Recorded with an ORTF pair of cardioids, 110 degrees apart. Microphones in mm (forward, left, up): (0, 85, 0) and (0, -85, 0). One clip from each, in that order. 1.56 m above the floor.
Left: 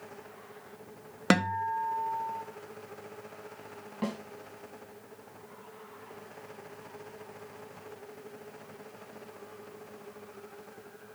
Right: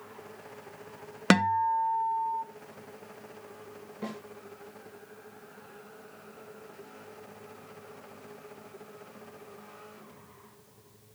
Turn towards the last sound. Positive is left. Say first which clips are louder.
# left 3 dB
turn(degrees=60)